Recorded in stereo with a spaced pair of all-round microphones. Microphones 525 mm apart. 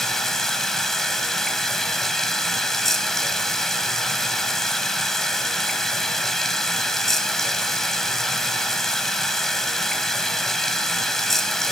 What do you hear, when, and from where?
0.0 s running water: centre (ahead or behind), 1.8 m